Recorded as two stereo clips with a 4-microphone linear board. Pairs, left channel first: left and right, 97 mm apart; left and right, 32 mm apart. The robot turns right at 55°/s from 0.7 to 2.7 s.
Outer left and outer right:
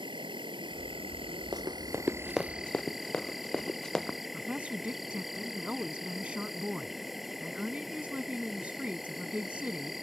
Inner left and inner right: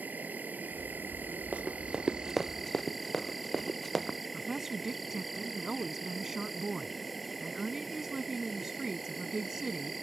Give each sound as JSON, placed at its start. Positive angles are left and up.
{"t": 0.0, "sound": "an insect", "azimuth_deg": -110}
{"t": 1.5, "sound": "running footsteps", "side_deg": -45}
{"t": 4.3, "sound": "a woman speaking", "side_deg": -15}